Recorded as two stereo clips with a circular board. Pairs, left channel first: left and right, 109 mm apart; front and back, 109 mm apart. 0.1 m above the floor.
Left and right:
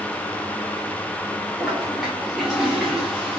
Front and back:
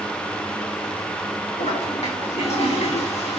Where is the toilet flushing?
5° right, 5.5 m.